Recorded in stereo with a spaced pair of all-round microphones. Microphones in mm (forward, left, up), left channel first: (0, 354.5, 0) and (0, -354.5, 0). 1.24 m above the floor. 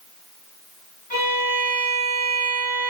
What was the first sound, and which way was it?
A violin, 40° left (ahead or behind).